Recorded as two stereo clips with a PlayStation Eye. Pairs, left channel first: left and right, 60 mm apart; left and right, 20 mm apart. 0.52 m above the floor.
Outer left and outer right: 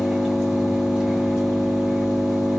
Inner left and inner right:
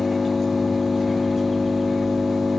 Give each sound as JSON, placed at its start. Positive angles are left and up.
{"t": 0.0, "sound": "an engine running", "side_deg": -5, "distance_m": 1.5}